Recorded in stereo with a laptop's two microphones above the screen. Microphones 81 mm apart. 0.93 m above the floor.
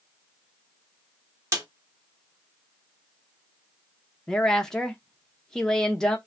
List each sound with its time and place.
1.5 s a snare drum: 40° right (ahead or behind), 1.1 m
4.3 s a woman speaking: 10° left (ahead or behind), 0.5 m